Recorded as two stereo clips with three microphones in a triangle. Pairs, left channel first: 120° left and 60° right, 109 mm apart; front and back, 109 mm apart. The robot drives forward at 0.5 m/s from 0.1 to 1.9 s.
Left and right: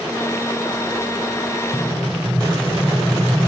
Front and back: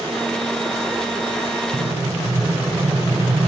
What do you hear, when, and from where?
1.7 s an explosion: 175° right, 2.5 m